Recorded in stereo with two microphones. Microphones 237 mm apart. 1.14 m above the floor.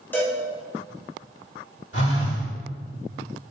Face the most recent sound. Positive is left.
turn(degrees=60)  # may be behind; listen again after turning